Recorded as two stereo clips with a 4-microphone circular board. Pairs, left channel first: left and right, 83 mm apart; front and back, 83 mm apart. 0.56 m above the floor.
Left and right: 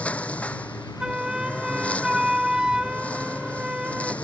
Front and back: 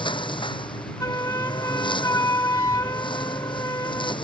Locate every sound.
0.0 s a lawn mower: 15° left
1.0 s a flute: 15° right